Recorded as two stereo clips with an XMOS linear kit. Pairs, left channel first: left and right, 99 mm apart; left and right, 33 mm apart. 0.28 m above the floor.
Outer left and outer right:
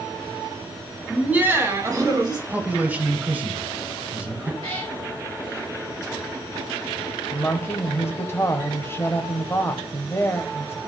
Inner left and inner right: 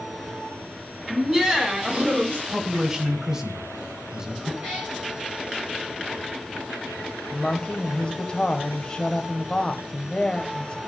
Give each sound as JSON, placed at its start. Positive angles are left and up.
{"t": 1.1, "sound": "laughter", "side_deg": -5, "distance_m": 1.4}
{"t": 2.5, "sound": "a man speaking", "side_deg": -15, "distance_m": 1.2}
{"t": 4.6, "sound": "a cat meowing", "side_deg": -75, "distance_m": 3.5}
{"t": 7.3, "sound": "a woman speaking", "side_deg": 25, "distance_m": 1.0}